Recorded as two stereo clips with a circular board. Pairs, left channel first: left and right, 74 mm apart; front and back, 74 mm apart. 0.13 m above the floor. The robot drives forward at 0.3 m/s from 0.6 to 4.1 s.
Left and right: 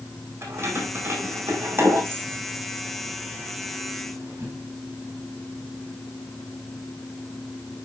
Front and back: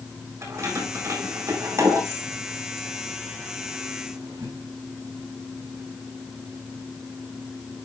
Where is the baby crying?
I don't hear a baby crying.